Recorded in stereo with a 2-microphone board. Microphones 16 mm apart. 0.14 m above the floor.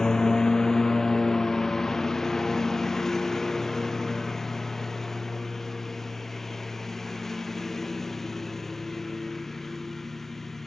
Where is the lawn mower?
45° left (ahead or behind); by 10.7 s 20° left (ahead or behind).